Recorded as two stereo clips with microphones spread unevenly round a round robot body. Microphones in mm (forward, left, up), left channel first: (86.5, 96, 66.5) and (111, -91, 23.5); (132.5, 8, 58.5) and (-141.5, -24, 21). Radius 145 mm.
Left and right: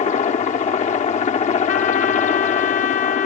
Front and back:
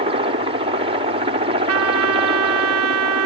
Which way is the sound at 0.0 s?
145° left.